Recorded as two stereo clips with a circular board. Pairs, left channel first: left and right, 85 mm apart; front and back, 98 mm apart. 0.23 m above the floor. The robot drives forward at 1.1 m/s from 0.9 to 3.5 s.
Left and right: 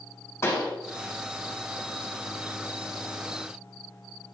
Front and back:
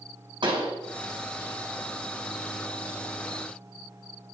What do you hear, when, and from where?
0.4 s a pop: 145° left, 4 m